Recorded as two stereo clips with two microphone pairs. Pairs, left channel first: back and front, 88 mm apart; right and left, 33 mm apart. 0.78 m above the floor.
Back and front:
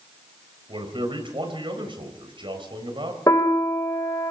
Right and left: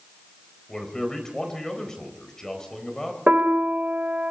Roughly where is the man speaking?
Ahead.